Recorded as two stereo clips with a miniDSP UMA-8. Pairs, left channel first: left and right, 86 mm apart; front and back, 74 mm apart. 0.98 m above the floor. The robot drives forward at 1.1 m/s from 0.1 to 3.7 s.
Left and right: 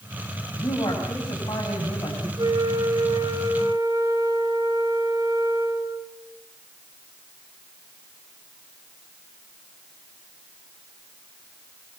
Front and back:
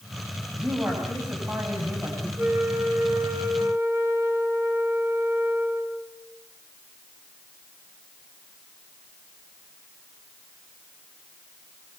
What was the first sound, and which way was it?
A man speaking, 115° left.